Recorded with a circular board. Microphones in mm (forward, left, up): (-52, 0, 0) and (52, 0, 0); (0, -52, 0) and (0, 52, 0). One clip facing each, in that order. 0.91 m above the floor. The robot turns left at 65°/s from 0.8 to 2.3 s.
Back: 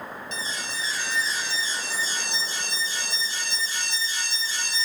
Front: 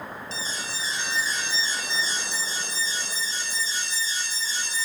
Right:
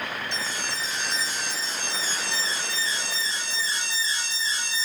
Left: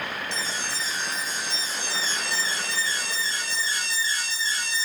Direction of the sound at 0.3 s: 55° right.